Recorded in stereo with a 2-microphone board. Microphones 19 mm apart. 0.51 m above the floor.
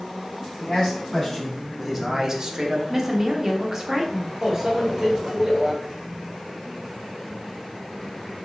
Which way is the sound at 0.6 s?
15° left (ahead or behind).